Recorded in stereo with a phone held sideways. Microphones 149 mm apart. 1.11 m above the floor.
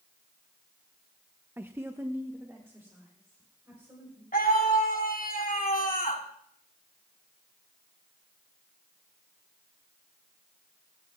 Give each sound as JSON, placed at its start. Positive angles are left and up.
{"t": 1.6, "sound": "a woman speaking", "side_deg": -15, "distance_m": 0.5}
{"t": 4.3, "sound": "a scream", "side_deg": 70, "distance_m": 2.5}